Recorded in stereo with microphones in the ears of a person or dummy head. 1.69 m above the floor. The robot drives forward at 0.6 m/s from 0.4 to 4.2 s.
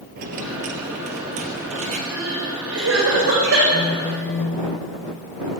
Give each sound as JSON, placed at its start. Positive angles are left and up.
{"t": 0.2, "sound": "a dropped coin", "side_deg": -40, "distance_m": 2.5}
{"t": 2.1, "sound": "crying", "side_deg": -75, "distance_m": 6.5}
{"t": 3.7, "sound": "a phone buzzing", "side_deg": 5, "distance_m": 3.5}